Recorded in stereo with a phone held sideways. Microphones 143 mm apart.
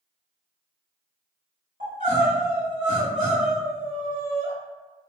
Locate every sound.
1.8 s crying: 65° right (ahead or behind), 1.8 m